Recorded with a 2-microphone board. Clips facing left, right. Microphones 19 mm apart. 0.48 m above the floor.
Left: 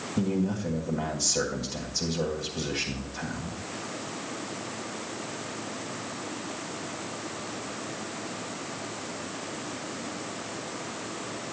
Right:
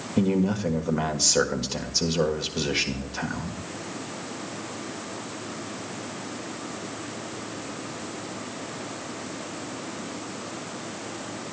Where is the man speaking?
45° right (ahead or behind), 1.6 m.